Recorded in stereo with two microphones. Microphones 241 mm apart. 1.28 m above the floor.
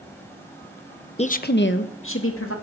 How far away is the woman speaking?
About 0.8 m.